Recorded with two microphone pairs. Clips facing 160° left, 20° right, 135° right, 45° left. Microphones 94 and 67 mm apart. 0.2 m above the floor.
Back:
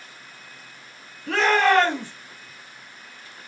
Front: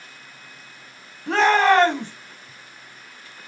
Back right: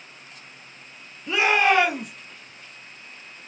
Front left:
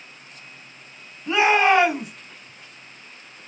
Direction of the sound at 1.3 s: 10° left.